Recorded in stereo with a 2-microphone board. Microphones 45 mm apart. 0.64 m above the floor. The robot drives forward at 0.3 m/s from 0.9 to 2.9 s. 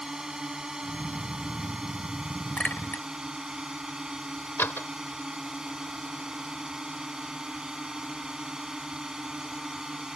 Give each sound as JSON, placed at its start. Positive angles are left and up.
{"t": 0.0, "sound": "a drone", "side_deg": -15}
{"t": 2.6, "sound": "a clink", "side_deg": 40}
{"t": 4.6, "sound": "a door slam", "side_deg": 60}